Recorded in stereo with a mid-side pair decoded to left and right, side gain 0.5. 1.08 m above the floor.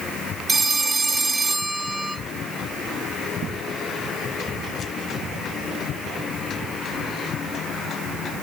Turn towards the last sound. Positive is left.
turn(degrees=-20)